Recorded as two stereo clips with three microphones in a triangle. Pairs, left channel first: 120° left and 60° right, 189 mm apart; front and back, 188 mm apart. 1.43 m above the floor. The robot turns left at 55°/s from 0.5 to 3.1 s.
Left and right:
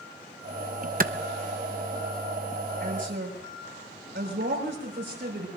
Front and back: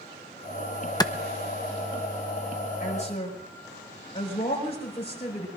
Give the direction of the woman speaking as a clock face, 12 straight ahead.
1 o'clock.